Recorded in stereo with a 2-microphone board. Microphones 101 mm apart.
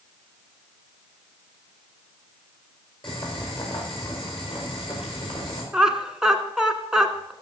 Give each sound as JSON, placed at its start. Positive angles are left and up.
{"t": 3.0, "sound": "boiling", "side_deg": 55, "distance_m": 6.0}
{"t": 5.7, "sound": "laughter", "side_deg": -5, "distance_m": 1.4}